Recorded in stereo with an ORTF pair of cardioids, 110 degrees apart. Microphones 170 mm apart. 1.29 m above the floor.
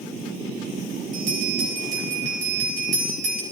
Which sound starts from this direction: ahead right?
A bell, at 1.1 s.